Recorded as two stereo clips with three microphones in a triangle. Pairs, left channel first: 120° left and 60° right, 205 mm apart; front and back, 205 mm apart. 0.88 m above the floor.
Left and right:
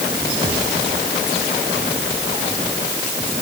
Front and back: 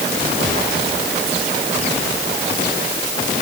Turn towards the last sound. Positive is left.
No sound to turn to.